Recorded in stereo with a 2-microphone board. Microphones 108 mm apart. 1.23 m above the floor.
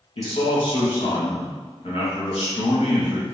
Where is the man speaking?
70° left (ahead or behind), 1.8 m.